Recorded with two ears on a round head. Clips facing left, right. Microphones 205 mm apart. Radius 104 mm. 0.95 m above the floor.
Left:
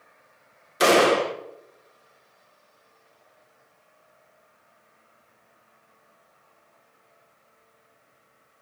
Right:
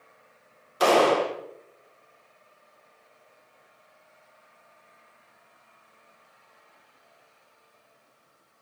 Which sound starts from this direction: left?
A gunshot, at 0.8 s.